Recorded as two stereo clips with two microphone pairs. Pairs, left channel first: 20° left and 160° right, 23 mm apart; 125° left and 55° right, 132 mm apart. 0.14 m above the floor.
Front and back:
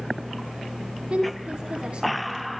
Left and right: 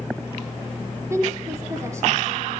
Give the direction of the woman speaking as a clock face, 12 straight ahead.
4 o'clock.